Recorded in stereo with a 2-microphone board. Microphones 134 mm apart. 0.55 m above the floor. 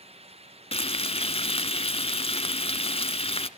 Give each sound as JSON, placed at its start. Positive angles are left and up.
{"t": 0.7, "sound": "frying", "side_deg": 45, "distance_m": 1.1}